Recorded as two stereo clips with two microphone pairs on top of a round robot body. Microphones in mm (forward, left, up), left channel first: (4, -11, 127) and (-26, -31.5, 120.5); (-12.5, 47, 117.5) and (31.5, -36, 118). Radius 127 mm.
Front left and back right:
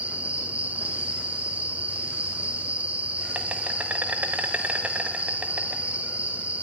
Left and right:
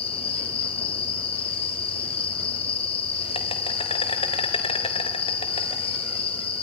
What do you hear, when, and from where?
0.0 s an insect: 150° left, 0.9 m